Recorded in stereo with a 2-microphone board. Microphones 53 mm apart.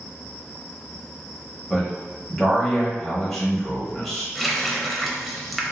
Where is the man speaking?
5° left (ahead or behind), 1.2 m.